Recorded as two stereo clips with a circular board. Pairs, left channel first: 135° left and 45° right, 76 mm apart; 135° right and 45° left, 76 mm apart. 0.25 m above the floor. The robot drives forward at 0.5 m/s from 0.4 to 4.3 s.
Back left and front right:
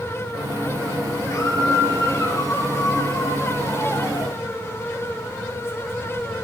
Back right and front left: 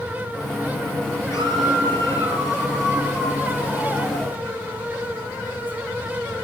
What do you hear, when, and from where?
1.3 s a scream: straight behind, 5.5 m